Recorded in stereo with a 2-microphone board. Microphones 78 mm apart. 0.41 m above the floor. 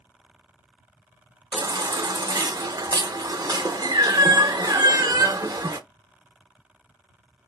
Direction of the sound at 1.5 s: 60° right (ahead or behind).